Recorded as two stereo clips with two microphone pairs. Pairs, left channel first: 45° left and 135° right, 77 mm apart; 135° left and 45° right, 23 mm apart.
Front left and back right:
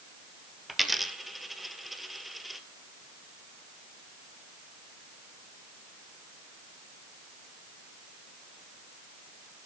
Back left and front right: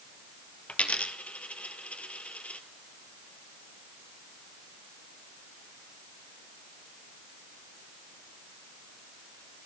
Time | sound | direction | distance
0.7 | a dropped coin | 140° left | 0.9 m